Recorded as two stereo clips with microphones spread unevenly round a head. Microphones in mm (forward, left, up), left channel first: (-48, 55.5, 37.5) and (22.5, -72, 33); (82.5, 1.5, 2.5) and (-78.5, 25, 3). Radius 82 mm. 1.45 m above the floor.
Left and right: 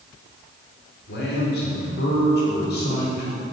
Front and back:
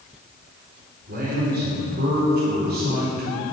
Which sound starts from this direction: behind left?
A man speaking, at 1.1 s.